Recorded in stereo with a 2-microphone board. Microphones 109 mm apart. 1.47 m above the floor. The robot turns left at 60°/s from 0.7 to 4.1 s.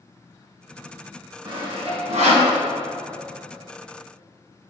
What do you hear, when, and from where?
1.4 s sawing: 45° right (ahead or behind), 1.9 m; by 2.5 s 70° right (ahead or behind), 1.9 m